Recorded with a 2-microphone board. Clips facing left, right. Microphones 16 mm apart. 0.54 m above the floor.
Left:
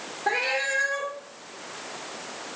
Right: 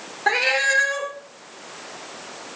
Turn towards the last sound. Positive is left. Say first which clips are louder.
# right 6 dB
turn(degrees=-45)  # may be behind; listen again after turning